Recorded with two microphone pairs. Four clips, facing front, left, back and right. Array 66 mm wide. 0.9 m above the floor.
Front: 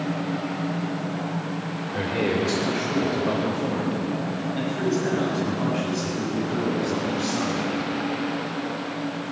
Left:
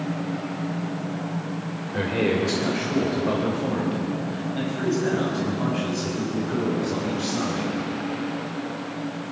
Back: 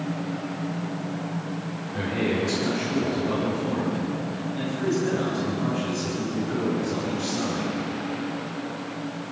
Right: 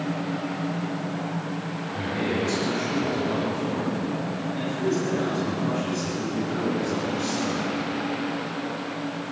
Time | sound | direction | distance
1.9 | a man speaking | 60° left | 3.5 m